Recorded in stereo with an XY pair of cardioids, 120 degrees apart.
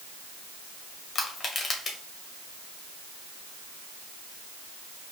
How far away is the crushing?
About 1.4 m.